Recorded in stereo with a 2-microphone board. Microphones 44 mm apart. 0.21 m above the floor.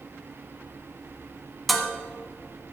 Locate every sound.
1.7 s dishes clattering: centre (ahead or behind), 1.2 m